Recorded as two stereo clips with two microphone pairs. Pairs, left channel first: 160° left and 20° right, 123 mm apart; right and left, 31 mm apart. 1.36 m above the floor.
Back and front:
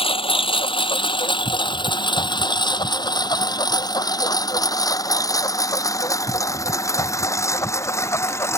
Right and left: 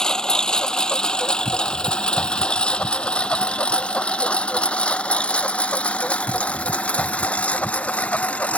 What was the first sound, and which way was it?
A lawn mower, 155° right.